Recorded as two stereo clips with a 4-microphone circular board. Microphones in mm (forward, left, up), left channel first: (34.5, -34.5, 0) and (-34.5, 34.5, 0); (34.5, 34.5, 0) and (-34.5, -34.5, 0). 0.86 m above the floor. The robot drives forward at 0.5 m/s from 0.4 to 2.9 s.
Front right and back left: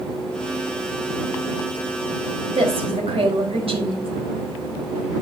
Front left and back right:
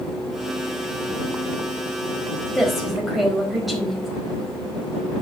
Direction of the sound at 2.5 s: 135° left.